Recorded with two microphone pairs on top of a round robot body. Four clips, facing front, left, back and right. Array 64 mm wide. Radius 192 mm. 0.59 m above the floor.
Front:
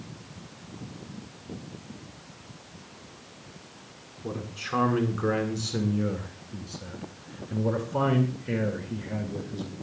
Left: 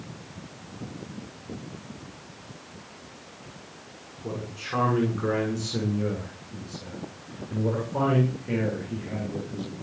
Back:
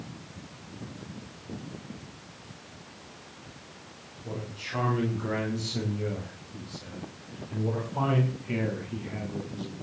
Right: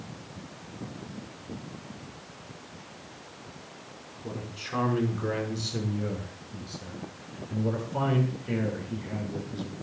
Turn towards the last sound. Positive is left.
turn(degrees=15)